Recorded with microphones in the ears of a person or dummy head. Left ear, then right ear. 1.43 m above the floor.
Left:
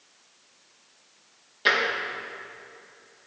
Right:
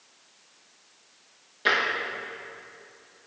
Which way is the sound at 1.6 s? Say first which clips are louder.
Left 1 dB; 10° left (ahead or behind).